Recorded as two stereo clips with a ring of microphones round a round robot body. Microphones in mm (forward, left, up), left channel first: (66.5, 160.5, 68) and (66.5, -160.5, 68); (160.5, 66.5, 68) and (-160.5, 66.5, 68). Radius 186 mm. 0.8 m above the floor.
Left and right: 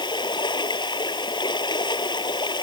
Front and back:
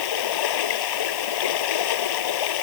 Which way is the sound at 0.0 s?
15° left.